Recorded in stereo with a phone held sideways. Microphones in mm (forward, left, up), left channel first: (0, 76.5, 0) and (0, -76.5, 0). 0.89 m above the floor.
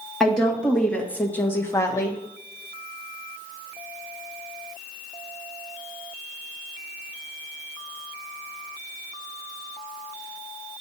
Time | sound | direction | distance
0.2 | a woman speaking | 5° left (ahead or behind) | 1.9 m